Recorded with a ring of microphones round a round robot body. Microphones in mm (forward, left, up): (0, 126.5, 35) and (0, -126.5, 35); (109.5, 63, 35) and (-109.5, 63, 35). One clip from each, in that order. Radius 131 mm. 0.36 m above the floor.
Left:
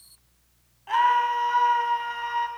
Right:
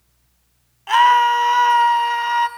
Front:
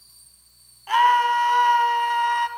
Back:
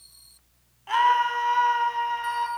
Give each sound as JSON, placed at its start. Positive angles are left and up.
{"t": 0.9, "sound": "a scream", "azimuth_deg": -75, "distance_m": 3.0}